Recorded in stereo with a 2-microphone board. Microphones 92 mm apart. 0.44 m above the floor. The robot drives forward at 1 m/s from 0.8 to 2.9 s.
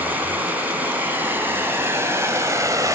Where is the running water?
20° right (ahead or behind), 3.5 m; by 3.0 s 35° right (ahead or behind), 1.9 m.